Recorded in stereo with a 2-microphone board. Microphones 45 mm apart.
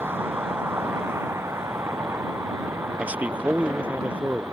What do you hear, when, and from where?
0.0 s a vehicle: 55° right (ahead or behind); by 4.5 s 70° right (ahead or behind)
3.0 s a man speaking: 35° right (ahead or behind)